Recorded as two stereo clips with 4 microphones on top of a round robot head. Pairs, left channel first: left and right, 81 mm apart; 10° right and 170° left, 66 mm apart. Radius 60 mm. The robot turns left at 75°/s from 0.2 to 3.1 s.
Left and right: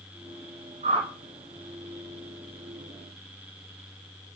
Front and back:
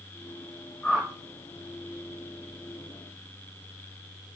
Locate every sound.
0.8 s a whoosh: 90° right, 3.5 m; by 1.1 s 110° right, 3.5 m